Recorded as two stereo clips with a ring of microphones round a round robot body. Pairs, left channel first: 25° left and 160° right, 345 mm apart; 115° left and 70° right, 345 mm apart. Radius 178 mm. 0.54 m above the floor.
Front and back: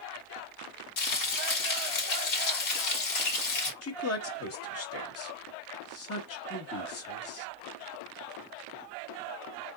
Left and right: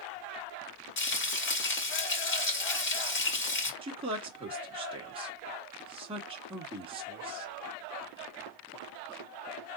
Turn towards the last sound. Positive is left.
turn(degrees=0)